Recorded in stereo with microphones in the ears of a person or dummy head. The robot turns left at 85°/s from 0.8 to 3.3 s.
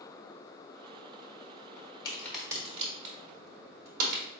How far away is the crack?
About 1.9 m.